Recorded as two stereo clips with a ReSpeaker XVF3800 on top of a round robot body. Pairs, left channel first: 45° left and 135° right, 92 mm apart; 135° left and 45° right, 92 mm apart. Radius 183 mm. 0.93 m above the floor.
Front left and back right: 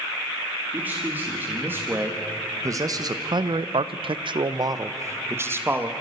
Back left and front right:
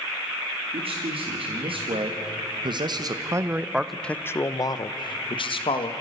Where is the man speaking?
60° right, 2.5 m; by 5.9 s 155° left, 1.6 m.